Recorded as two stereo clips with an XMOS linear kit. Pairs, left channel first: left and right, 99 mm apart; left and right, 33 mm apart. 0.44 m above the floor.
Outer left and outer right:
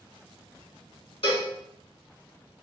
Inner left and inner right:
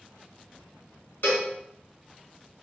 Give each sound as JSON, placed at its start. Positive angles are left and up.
{"t": 1.2, "sound": "a cowbell", "side_deg": 70, "distance_m": 1.3}